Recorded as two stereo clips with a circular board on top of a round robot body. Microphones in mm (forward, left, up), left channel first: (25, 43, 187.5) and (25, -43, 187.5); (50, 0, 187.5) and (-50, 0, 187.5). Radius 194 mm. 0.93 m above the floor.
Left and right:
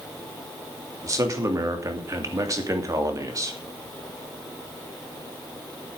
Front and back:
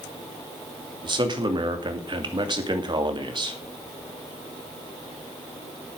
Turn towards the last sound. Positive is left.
turn(degrees=-140)